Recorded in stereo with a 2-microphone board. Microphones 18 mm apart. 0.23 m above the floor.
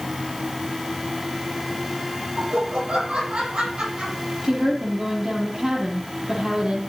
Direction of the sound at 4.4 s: 35° right (ahead or behind).